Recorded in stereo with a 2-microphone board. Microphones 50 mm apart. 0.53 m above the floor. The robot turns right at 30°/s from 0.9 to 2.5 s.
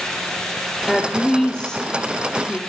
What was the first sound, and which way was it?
A woman speaking, 5° left (ahead or behind).